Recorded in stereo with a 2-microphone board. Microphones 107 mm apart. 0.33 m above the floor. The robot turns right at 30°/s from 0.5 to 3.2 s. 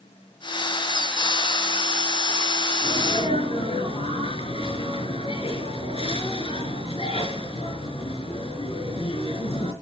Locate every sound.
2.8 s a sneeze: 75° left (ahead or behind), 5.5 m; by 9.7 s 65° left (ahead or behind), 5.5 m